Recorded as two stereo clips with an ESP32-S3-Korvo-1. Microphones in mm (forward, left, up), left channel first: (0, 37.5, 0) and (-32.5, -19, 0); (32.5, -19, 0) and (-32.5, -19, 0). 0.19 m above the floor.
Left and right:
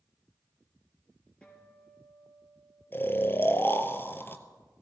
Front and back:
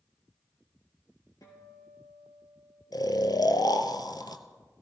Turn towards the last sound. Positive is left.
turn(degrees=5)